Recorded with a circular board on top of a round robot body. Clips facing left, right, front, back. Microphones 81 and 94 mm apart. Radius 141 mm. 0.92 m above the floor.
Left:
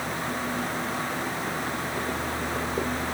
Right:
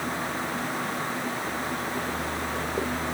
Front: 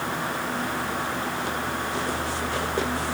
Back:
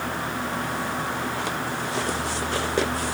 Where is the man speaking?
I don't hear a man speaking.